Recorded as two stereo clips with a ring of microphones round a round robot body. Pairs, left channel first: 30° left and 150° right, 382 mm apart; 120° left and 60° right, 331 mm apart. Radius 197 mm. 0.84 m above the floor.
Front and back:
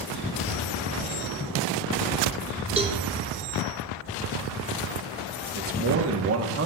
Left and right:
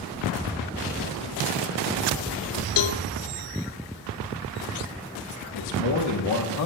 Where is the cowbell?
135° left, 0.7 m.